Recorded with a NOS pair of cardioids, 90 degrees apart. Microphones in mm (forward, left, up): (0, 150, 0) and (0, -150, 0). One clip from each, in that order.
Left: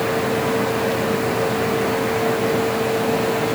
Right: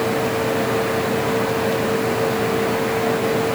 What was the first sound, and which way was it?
Only background noise.